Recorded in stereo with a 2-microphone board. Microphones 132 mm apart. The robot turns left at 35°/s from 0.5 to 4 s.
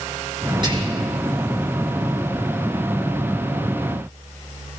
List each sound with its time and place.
0.6 s whispering: 35° right (ahead or behind), 5.5 m; by 1.1 s 50° right (ahead or behind), 5.5 m